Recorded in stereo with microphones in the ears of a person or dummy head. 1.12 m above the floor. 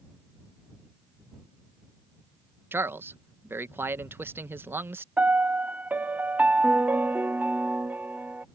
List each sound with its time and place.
2.7 s a man speaking: 10° right (ahead or behind)
5.2 s a piano: 5° right (ahead or behind)